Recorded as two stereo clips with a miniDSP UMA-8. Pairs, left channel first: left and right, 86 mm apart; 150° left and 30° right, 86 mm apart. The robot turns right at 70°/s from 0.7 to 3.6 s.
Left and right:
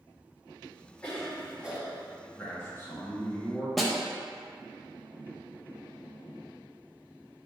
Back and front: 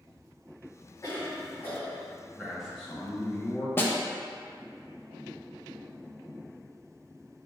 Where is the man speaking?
40° left, 1.3 m; by 3.7 s 130° left, 1.3 m.